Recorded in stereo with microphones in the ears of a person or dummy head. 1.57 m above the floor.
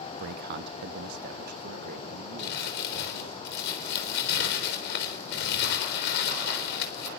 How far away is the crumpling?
About 3.5 m.